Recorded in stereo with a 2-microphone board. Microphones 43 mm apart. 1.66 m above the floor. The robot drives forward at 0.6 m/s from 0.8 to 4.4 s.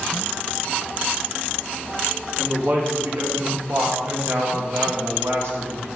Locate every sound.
2.4 s a man speaking: 60° right (ahead or behind), 3 m; by 5.9 s 80° right, 2.5 m